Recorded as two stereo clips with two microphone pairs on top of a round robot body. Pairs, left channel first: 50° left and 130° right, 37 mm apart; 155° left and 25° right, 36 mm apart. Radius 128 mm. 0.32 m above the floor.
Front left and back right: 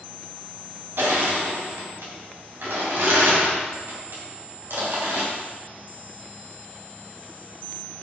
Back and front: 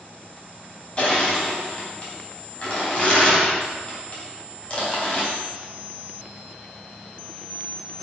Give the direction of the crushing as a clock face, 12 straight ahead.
5 o'clock.